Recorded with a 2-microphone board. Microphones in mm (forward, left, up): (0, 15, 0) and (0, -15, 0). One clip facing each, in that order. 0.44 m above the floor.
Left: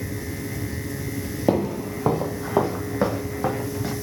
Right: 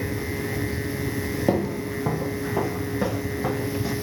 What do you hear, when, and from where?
1.5 s footsteps: 15° left (ahead or behind), 0.5 m; by 3.9 s 40° left (ahead or behind), 1.6 m